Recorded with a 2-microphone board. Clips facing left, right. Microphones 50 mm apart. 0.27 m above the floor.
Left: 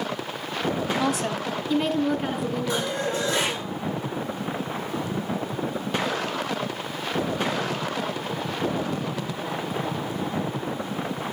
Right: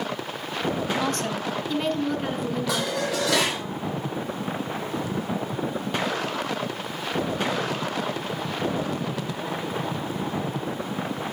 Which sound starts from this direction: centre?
A woman speaking, at 1.0 s.